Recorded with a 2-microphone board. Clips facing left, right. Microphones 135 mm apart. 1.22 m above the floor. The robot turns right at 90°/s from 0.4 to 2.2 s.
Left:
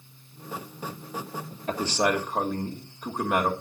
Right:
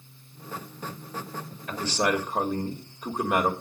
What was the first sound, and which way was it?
A man speaking, 135° left.